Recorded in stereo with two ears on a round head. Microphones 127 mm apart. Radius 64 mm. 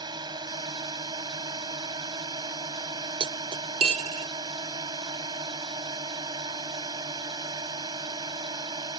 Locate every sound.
0.0 s a drone: 30° right (ahead or behind)
3.2 s cutlery clinking: 40° right (ahead or behind)